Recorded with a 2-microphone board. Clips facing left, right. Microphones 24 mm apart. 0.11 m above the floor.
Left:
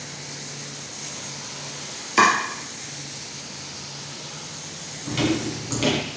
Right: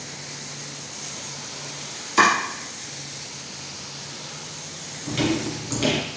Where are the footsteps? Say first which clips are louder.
Even; 15° left (ahead or behind), 4 m.